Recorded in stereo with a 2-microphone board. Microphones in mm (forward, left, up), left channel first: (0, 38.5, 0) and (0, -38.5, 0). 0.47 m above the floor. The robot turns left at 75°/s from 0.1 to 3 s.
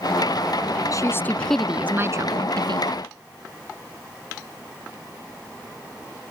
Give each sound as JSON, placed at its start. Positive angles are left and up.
{"t": 0.9, "sound": "a woman speaking", "azimuth_deg": 50}